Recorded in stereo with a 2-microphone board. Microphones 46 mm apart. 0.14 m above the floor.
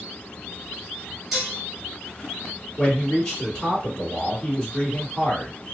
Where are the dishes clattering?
10° right (ahead or behind), 1.8 m.